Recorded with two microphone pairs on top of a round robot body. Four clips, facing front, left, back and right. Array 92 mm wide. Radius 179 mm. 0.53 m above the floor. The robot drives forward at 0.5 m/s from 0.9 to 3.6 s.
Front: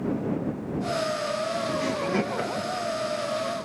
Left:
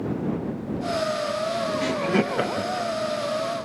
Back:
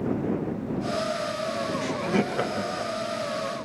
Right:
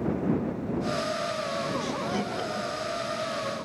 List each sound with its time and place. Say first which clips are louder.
1.8 s laughter: left 7 dB, even; 90° left, 1.1 m; by 2.9 s 135° left, 1.2 m